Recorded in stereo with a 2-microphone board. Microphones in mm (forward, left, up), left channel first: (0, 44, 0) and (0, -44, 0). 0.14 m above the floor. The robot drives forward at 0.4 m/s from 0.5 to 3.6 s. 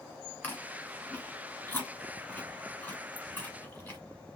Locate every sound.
0.4 s chewing: 20° left (ahead or behind), 1.9 m